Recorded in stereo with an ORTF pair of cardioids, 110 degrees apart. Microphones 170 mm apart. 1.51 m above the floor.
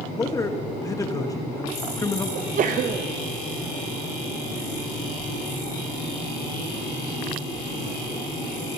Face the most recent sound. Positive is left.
turn(degrees=-55)